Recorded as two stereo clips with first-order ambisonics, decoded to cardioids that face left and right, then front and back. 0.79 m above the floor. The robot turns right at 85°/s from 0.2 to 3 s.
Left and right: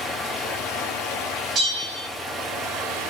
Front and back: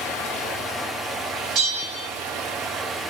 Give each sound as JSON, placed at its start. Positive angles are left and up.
{"t": 0.0, "sound": "running water", "azimuth_deg": 20, "distance_m": 0.8}
{"t": 1.6, "sound": "a bell", "azimuth_deg": -145, "distance_m": 2.0}